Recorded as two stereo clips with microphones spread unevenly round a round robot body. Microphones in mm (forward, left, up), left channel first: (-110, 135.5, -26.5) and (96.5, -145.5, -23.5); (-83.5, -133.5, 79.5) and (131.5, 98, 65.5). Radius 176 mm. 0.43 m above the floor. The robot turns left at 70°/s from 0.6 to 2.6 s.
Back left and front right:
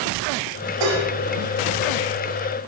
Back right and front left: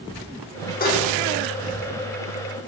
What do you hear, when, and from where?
0.8 s dishes clattering: 70° right, 5.5 m; by 1.1 s 90° right, 5.5 m